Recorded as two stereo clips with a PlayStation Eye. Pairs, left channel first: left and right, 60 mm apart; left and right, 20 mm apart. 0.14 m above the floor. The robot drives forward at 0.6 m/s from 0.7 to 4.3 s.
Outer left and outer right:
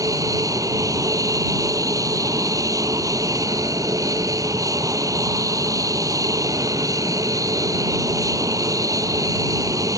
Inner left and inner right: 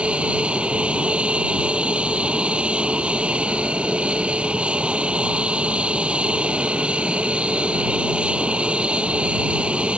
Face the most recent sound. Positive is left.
turn(degrees=-70)  # may be behind; listen again after turning